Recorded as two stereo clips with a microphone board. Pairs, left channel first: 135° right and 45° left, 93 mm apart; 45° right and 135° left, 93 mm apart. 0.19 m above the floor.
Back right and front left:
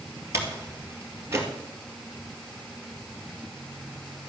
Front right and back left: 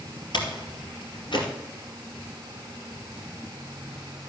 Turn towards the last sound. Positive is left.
turn(degrees=-15)